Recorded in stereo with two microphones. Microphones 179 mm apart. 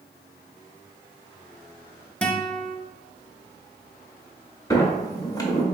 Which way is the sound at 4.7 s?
20° left (ahead or behind).